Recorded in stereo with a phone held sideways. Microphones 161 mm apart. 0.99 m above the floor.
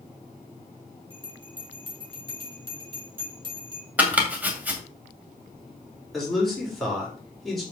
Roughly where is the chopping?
Centre.